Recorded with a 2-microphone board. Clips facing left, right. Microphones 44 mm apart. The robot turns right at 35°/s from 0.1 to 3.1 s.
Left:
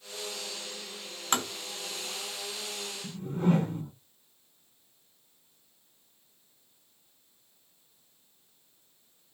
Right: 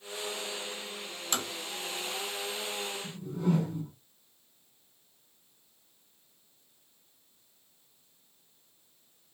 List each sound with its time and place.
1.3 s tapping: 45° left (ahead or behind), 0.6 m
3.0 s a whoosh: 45° left (ahead or behind), 0.6 m; by 3.9 s 50° left (ahead or behind), 0.6 m